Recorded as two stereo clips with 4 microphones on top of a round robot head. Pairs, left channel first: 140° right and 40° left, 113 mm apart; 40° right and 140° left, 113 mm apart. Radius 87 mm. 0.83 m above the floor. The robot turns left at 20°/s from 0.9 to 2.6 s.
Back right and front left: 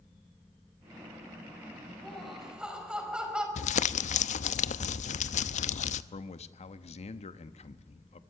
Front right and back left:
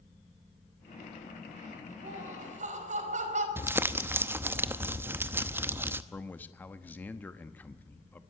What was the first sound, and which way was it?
Laughter, 135° left.